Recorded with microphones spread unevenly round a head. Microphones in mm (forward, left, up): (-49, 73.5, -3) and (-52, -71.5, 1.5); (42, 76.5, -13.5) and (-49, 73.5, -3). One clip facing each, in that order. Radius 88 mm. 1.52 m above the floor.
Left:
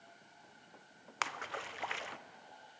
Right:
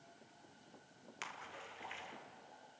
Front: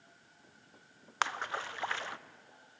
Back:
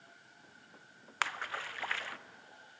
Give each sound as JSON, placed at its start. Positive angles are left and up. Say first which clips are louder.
{"t": 1.2, "sound": "a splash", "louder": "left 10 dB, front 3 dB", "azimuth_deg": 70, "distance_m": 0.7}